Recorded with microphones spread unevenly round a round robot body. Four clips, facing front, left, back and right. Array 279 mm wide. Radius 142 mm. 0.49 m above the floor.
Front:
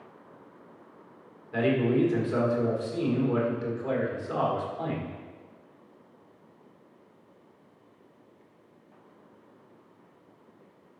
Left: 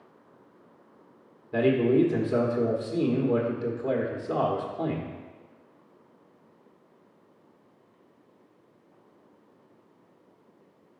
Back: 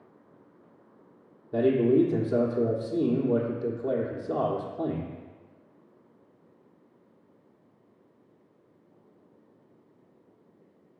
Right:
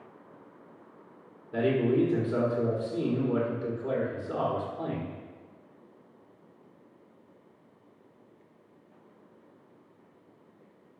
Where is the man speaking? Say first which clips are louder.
Left 3 dB, back 3 dB; 160° left, 1.1 m.